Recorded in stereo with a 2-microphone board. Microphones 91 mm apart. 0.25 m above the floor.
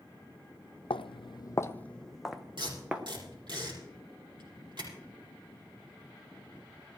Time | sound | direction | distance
0.9 | footsteps | 75° left (ahead or behind) | 0.8 m
2.6 | tape being pulled | 55° right (ahead or behind) | 7 m